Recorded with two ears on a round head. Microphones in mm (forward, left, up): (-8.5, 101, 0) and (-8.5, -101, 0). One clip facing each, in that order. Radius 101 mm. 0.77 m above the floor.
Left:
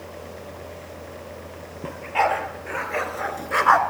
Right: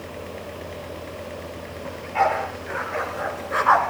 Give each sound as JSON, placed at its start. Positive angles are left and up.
{"t": 1.8, "sound": "a dog barking", "side_deg": 50, "distance_m": 5.0}